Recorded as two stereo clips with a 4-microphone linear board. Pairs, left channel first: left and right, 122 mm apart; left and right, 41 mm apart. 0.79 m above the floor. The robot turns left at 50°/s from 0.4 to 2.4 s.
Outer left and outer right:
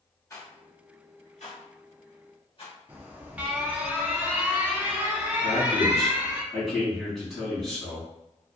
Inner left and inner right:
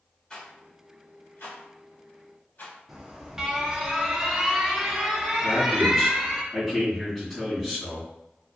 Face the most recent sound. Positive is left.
turn(degrees=0)  # may be behind; listen again after turning